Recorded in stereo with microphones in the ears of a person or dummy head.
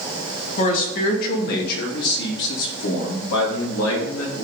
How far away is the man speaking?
About 2.5 m.